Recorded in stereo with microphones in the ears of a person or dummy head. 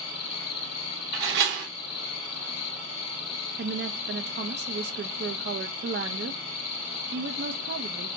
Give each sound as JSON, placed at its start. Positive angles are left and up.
{"t": 0.0, "sound": "an insect", "side_deg": 80, "distance_m": 1.5}
{"t": 1.1, "sound": "a door slam", "side_deg": -60, "distance_m": 1.2}
{"t": 3.6, "sound": "a woman speaking", "side_deg": -50, "distance_m": 0.6}